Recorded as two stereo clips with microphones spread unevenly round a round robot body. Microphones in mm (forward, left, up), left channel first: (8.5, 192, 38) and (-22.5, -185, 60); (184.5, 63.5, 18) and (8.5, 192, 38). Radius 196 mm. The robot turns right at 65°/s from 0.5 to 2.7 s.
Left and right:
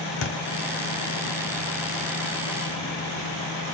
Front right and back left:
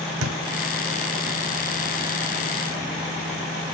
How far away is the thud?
About 1.1 m.